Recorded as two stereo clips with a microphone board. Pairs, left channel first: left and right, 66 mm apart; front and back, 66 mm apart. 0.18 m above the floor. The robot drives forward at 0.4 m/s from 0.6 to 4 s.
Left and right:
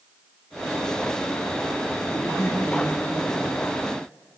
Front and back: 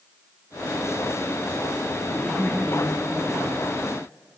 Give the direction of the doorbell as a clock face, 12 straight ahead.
I don't hear a doorbell.